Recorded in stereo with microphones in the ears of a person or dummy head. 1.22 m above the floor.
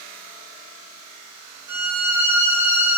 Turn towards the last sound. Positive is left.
turn(degrees=-15)  # may be behind; listen again after turning